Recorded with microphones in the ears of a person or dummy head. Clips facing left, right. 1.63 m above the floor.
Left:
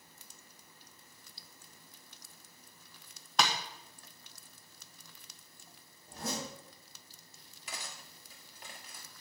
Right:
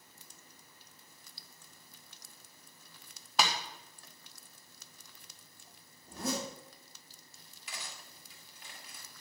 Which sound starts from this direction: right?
A zipper, at 6.0 s.